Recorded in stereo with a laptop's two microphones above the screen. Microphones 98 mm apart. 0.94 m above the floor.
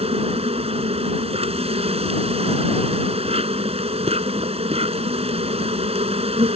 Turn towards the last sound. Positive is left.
turn(degrees=-80)